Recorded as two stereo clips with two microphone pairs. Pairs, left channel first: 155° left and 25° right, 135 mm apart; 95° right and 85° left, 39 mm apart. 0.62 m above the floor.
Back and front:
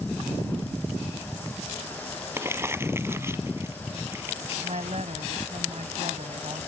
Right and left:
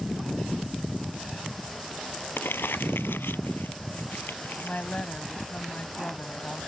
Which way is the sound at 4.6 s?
45° right.